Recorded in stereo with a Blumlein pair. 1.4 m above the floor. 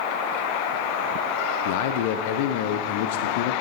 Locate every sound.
1.6 s a man speaking: 50° left, 0.6 m